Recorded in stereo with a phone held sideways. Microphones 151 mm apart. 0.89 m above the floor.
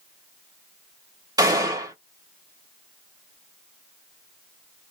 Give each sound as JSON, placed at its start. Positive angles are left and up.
{"t": 1.4, "sound": "a gunshot", "side_deg": -25, "distance_m": 1.2}